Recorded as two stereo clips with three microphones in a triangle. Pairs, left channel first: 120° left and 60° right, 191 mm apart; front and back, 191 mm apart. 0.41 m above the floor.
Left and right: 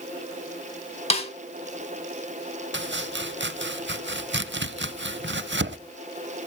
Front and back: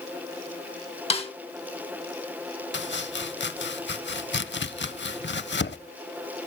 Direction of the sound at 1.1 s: 60° left.